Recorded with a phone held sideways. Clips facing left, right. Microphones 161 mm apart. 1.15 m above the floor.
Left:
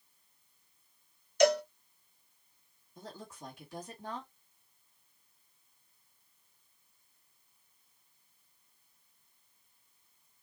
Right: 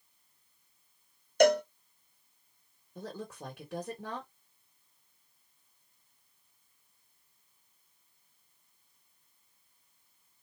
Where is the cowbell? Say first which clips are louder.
Right 2 dB; 55° right (ahead or behind), 0.7 m.